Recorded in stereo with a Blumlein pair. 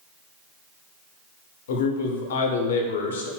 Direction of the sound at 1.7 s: 60° left.